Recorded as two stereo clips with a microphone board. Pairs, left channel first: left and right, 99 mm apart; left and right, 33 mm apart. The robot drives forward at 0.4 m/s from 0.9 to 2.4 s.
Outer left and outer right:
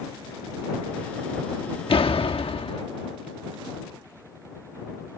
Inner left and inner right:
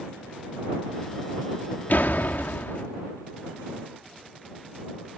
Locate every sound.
1.9 s a door slam: 65° left (ahead or behind); by 2.8 s 70° left (ahead or behind)